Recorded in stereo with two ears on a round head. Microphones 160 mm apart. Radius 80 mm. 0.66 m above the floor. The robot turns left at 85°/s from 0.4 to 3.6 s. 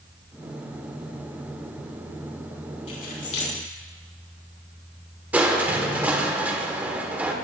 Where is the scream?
No scream in this recording.